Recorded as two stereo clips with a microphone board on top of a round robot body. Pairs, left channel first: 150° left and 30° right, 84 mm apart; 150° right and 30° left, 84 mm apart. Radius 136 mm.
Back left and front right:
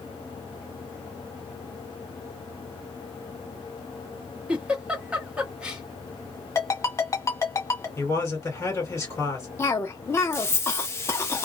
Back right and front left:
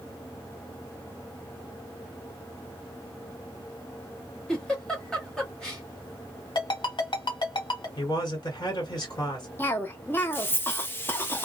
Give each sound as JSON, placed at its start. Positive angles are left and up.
{"t": 4.5, "sound": "a giggle", "azimuth_deg": -85, "distance_m": 1.4}
{"t": 6.5, "sound": "a ringtone", "azimuth_deg": -160, "distance_m": 1.7}
{"t": 8.0, "sound": "a man speaking", "azimuth_deg": -170, "distance_m": 1.9}
{"t": 9.6, "sound": "a cough", "azimuth_deg": 170, "distance_m": 0.9}